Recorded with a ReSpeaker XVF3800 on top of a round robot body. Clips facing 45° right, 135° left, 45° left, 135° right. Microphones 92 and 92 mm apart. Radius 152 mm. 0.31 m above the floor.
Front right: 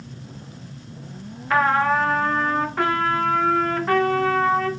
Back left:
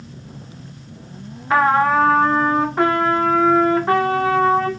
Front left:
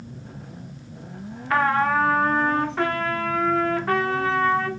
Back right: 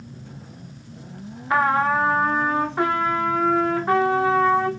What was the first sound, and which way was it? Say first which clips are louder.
A trumpet: back left 4 dB, back right 1 dB; 175° left.